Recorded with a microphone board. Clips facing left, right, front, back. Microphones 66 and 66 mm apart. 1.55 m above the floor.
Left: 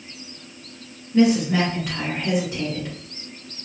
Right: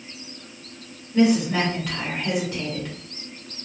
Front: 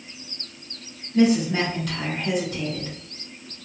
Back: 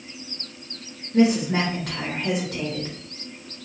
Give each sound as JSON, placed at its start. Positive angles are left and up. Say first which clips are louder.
{"t": 1.1, "sound": "a woman speaking", "louder": "left 1 dB, even", "azimuth_deg": 170, "distance_m": 1.7}